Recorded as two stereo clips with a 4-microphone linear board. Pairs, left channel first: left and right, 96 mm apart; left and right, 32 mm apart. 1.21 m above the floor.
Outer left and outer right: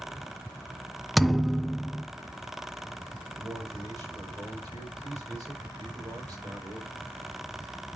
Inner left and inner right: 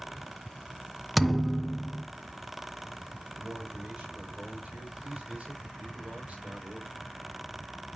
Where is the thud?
Centre (ahead or behind), 0.6 m.